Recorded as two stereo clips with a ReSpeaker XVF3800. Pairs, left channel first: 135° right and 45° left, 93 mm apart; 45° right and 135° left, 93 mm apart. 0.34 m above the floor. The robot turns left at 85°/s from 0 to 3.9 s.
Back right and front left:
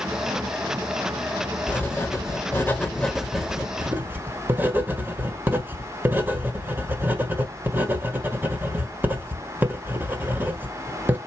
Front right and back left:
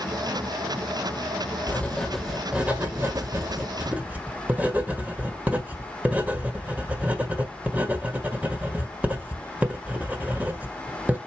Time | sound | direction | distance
1.7 | writing | 85° right | 1.3 m